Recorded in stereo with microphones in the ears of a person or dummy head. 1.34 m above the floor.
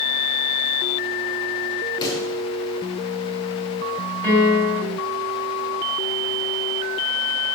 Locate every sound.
2.0 s a pop: 25° left (ahead or behind), 4 m
4.2 s a piano: 10° left (ahead or behind), 6.5 m